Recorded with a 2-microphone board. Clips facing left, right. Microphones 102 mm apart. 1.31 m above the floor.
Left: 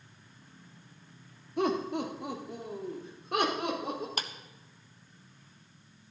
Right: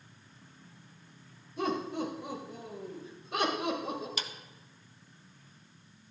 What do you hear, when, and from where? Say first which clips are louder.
1.6 s laughter: left 3 dB; 75° left (ahead or behind), 2.5 m; by 4.1 s 60° left (ahead or behind), 4 m
4.2 s a clap: left 3 dB; 50° left (ahead or behind), 0.9 m